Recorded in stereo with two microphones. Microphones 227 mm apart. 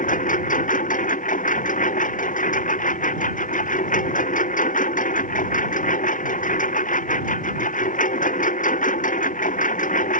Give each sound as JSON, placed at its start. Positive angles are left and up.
{"t": 0.0, "sound": "a lawn mower", "side_deg": 35}